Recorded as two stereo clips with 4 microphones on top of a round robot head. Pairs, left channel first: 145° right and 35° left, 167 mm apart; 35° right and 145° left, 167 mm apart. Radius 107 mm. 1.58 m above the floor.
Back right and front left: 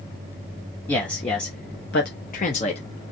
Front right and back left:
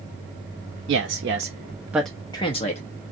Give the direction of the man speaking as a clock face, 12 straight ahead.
7 o'clock.